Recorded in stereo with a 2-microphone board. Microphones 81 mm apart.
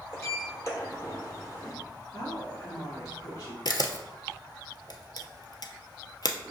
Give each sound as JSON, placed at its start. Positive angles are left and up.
{"t": 0.1, "sound": "a sliding door", "side_deg": 40, "distance_m": 1.2}
{"t": 2.1, "sound": "a woman speaking", "side_deg": 50, "distance_m": 1.9}
{"t": 3.6, "sound": "a camera shutter", "side_deg": 60, "distance_m": 0.5}